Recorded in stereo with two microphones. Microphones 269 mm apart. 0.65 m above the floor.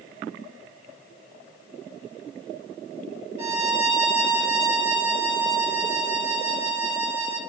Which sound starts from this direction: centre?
A violin, at 3.4 s.